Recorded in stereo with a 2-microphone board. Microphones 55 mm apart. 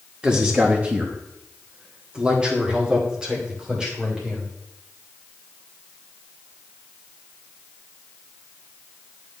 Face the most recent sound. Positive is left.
turn(degrees=-15)  # may be behind; listen again after turning